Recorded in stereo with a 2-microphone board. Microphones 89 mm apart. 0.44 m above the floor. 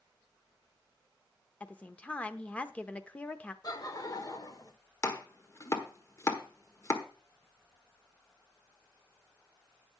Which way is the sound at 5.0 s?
35° left (ahead or behind).